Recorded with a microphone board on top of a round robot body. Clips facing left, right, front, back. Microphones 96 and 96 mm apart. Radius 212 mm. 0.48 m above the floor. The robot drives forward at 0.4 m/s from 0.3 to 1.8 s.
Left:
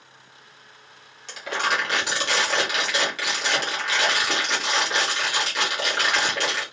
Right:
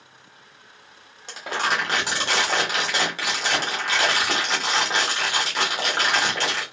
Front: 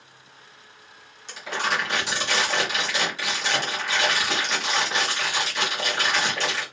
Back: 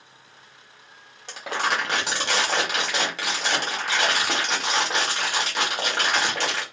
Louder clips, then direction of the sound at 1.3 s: Even, back 1 dB; 140° right.